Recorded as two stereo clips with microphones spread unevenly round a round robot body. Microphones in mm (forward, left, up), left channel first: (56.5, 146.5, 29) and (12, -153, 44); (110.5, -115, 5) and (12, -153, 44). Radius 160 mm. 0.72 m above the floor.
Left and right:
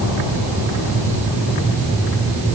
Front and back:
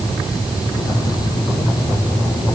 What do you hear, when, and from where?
Only background noise.